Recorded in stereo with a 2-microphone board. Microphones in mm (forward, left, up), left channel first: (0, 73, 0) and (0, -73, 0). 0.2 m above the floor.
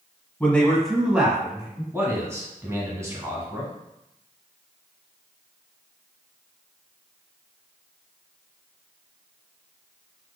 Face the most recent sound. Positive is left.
turn(degrees=-20)  # may be behind; listen again after turning